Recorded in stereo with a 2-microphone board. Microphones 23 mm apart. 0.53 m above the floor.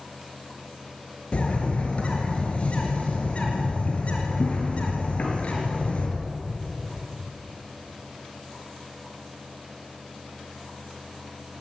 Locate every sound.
1.3 s a bird: 55° left (ahead or behind), 4.5 m